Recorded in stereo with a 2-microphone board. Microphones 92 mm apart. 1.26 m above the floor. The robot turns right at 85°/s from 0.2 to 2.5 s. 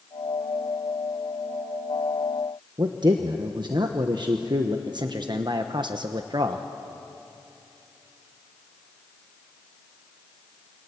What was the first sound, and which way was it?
A man speaking, 55° right (ahead or behind).